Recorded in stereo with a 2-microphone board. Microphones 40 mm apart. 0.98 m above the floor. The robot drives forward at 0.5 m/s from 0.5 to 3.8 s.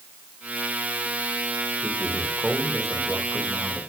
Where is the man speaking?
20° right (ahead or behind), 3 m; by 3.8 s 15° right (ahead or behind), 4 m.